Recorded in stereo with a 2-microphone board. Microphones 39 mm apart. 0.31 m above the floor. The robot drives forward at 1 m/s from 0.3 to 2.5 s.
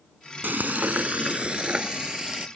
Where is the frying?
65° right (ahead or behind); by 2.5 s 20° right (ahead or behind).